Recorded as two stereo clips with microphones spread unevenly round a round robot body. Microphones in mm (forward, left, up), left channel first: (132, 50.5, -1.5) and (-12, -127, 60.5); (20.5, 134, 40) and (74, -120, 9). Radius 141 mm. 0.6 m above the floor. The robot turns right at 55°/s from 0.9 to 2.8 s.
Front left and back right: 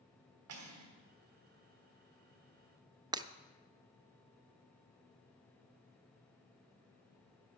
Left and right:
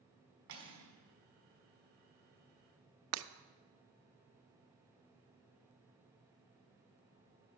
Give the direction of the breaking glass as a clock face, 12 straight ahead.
2 o'clock.